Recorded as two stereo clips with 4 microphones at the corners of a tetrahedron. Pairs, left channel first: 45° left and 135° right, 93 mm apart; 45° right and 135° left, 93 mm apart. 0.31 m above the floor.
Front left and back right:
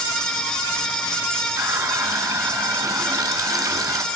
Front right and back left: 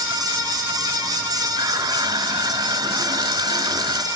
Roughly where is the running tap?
Behind.